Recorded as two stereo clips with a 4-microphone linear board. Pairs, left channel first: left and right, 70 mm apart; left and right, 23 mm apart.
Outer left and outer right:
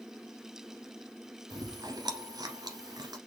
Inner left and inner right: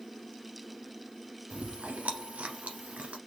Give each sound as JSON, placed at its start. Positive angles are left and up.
{"t": 1.5, "sound": "chewing", "side_deg": -70, "distance_m": 1.1}